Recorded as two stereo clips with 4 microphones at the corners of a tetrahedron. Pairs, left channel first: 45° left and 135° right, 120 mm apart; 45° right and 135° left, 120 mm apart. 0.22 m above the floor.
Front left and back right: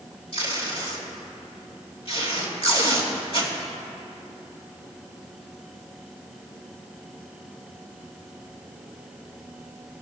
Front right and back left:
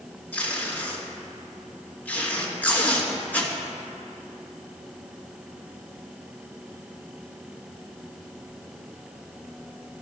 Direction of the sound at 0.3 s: 30° left.